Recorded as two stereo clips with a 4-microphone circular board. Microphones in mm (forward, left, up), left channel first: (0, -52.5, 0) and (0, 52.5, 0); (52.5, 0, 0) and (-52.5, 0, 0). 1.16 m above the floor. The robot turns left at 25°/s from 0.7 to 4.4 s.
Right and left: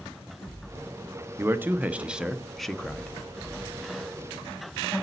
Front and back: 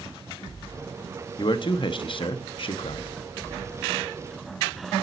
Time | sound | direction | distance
1.4 | a man speaking | 30° left | 0.6 m